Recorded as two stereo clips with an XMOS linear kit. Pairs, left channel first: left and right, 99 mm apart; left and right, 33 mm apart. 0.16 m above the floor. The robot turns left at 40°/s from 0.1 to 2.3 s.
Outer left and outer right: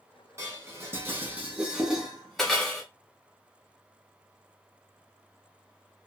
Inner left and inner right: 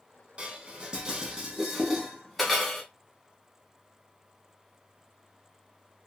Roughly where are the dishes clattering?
Right.